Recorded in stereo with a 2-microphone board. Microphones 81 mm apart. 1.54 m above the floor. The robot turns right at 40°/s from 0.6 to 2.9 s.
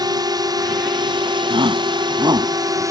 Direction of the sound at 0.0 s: 60° right (ahead or behind).